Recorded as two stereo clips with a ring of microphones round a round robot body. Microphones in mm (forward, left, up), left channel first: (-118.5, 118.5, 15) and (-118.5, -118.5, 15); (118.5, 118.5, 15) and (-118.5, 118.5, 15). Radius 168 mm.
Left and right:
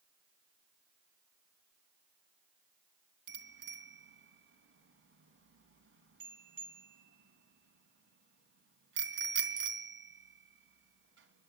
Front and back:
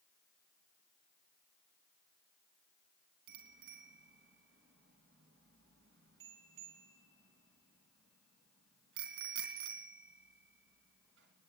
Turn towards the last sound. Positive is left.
turn(degrees=-125)